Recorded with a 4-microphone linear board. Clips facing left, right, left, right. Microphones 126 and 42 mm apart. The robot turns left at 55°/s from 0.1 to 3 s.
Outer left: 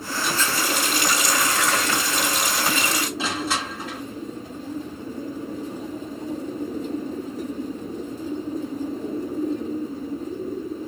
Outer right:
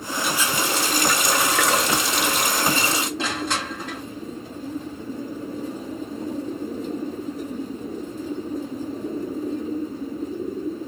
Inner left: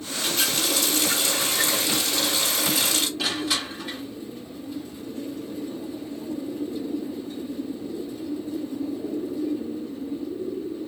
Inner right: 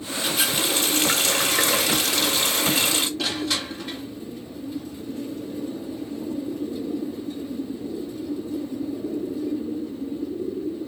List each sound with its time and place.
0.2 s a running tap: straight ahead, 1.1 m; by 3.1 s 155° right, 1.1 m
3.2 s crushing: 5° left (ahead or behind), 2.0 m